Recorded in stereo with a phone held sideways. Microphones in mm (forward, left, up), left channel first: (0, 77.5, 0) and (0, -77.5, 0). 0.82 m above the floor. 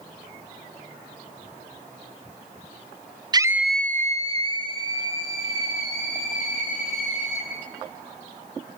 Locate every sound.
3.3 s a scream: 30° right (ahead or behind), 0.7 m; by 7.5 s 45° left (ahead or behind), 5 m